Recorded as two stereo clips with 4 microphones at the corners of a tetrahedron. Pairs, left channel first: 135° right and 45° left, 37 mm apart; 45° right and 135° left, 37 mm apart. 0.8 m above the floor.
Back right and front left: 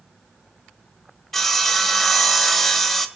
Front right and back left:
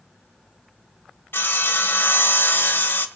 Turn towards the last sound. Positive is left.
turn(degrees=-50)